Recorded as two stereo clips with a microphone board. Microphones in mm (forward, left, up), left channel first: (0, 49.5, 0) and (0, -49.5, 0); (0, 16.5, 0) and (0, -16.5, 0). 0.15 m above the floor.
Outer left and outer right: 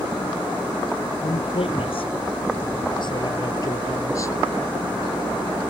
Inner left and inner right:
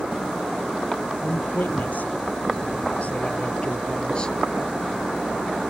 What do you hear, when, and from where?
1.2 s a man speaking: 70° left (ahead or behind); by 4.4 s 30° left (ahead or behind)